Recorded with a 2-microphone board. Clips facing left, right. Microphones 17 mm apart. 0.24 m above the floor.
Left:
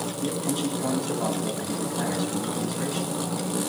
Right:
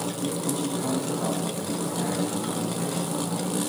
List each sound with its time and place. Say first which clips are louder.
0.2 s a man speaking: left 2 dB; 15° left (ahead or behind), 1.9 m